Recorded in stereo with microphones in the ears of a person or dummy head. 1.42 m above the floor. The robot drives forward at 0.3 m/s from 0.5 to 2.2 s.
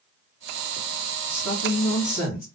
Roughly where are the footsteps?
No footsteps in this recording.